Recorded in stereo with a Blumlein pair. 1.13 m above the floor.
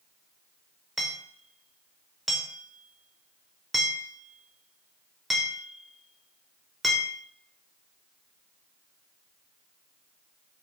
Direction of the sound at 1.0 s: 5° right.